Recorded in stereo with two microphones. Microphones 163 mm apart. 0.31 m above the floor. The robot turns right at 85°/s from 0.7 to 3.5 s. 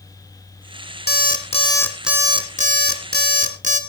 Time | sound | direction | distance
1.1 | an alarm clock | 100° left | 1.7 m